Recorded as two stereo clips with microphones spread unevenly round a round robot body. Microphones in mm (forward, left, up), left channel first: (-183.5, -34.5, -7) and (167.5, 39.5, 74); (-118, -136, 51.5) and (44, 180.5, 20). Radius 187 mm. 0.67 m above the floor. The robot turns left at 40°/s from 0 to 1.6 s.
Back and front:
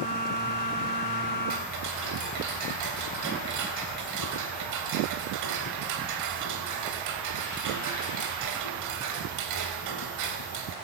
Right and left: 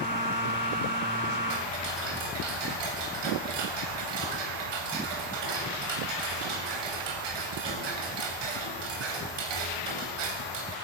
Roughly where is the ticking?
Ahead left.